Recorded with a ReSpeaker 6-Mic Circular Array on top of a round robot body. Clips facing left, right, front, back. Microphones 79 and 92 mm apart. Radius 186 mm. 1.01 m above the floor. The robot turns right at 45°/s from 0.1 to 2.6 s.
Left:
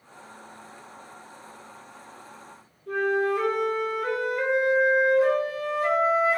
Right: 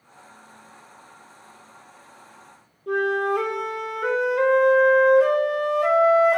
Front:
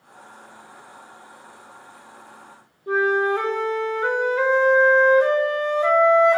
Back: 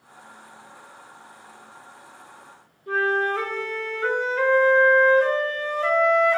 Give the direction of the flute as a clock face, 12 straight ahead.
2 o'clock.